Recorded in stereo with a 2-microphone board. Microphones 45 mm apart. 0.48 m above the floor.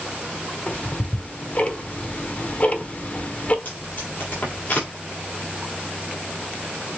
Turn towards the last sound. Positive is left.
turn(degrees=45)  # may be behind; listen again after turning